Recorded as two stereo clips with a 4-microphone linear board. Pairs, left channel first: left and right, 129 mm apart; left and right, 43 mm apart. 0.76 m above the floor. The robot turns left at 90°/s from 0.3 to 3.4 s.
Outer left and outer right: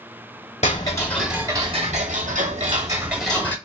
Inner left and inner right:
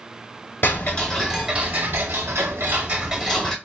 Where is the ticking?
55° left, 1.0 m; by 3.5 s 165° left, 1.0 m.